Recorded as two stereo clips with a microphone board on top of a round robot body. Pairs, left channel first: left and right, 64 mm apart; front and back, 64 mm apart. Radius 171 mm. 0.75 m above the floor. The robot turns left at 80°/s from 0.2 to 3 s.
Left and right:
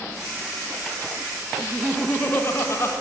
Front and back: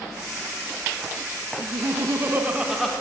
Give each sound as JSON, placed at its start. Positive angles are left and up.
{"t": 1.6, "sound": "laughter", "azimuth_deg": -165, "distance_m": 1.1}